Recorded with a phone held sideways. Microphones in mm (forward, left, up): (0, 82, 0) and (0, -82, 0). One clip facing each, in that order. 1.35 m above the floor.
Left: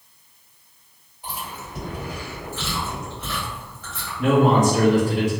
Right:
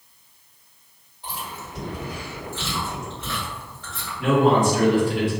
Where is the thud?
I don't hear a thud.